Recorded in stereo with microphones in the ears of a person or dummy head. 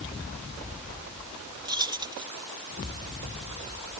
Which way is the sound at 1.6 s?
20° right (ahead or behind).